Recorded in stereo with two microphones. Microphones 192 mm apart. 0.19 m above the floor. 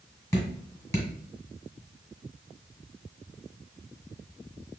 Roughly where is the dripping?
Centre.